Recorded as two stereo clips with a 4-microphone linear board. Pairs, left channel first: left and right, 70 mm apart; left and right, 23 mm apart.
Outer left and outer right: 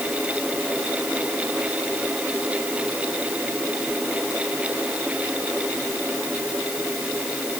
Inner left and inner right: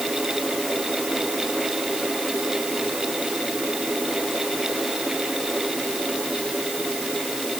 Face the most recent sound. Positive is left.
No sound to turn to.